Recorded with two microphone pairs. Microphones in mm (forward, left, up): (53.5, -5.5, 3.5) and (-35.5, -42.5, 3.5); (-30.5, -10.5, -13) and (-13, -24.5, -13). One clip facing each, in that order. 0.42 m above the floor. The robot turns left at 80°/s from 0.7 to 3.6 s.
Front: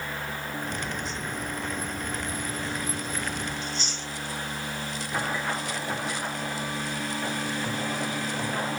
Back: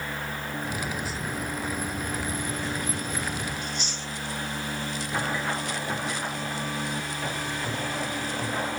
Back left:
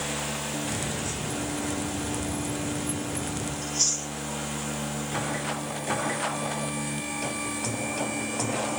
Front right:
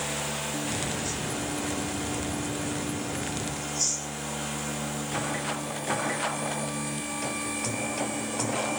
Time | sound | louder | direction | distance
3.6 | chewing | even, back left 5 dB | 120° left | 1.3 m